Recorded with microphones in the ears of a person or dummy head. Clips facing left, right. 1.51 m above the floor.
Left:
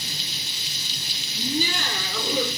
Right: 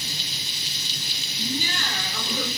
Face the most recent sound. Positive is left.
turn(degrees=75)  # may be behind; listen again after turning